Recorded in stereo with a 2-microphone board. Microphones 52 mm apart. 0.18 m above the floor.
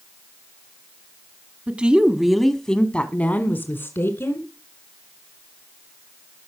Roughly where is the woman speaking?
Right.